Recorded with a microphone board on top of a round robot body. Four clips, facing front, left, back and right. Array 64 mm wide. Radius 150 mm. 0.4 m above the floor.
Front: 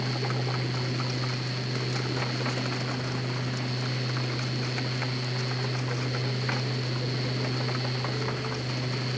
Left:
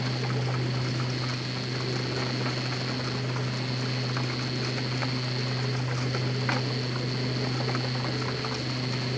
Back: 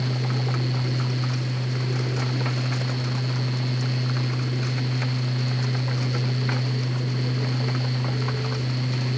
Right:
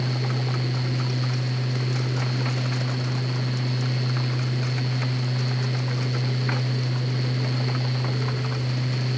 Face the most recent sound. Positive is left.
No sound to turn to.